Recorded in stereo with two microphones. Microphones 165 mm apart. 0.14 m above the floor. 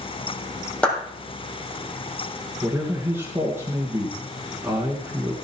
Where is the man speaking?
15° right (ahead or behind), 2.5 m.